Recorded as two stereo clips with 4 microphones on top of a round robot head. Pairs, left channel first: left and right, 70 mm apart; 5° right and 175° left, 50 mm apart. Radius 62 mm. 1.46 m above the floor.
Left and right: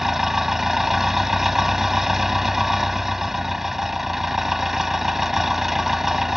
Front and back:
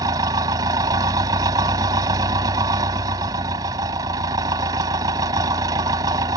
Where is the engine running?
175° right.